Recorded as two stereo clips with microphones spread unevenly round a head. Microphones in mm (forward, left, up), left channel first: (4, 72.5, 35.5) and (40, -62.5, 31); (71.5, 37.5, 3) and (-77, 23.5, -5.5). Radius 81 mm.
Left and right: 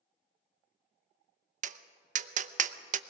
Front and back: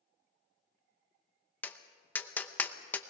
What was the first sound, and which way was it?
Tapping, 75° right.